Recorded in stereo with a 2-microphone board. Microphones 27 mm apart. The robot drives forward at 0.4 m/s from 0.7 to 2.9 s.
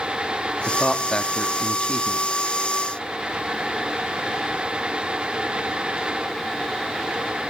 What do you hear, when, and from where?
0.7 s a man speaking: 45° left (ahead or behind), 0.7 m; by 2.2 s 35° left (ahead or behind), 0.9 m